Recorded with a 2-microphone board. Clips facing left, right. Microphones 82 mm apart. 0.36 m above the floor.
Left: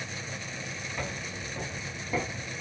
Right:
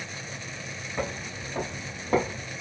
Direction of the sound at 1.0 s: 30° right (ahead or behind).